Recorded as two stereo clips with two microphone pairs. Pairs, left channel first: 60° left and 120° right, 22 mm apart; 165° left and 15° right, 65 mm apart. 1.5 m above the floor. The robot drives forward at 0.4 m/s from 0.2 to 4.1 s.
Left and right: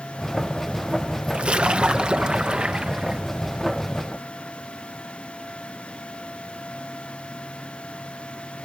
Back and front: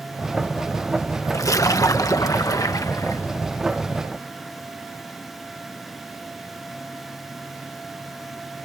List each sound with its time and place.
1.3 s a splash: 160° right; by 3.2 s 170° right